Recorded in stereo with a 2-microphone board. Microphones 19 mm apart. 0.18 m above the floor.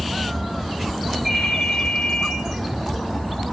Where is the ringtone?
25° right (ahead or behind), 4 m.